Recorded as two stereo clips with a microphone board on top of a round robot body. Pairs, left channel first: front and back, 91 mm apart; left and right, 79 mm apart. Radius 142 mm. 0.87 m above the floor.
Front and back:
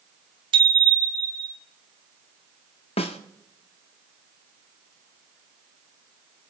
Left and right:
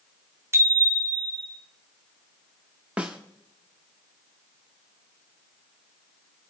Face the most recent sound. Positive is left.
turn(degrees=-10)